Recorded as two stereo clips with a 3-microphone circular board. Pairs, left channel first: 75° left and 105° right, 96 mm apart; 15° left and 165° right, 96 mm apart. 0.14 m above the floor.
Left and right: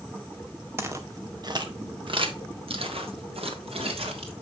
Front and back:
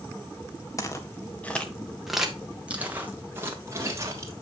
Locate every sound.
0.8 s footsteps: 40° right, 1.6 m; by 4.3 s 110° right, 3 m